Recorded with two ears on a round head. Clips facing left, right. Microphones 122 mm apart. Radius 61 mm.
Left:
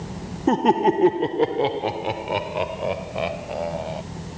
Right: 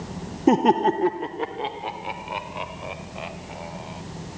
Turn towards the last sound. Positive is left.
turn(degrees=65)  # may be behind; listen again after turning